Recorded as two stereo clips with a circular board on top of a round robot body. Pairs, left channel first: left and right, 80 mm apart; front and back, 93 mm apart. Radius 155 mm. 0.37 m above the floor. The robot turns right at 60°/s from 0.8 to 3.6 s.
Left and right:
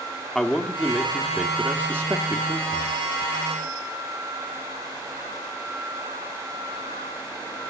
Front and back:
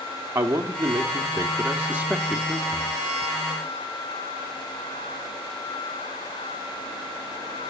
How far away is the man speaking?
About 1.0 m.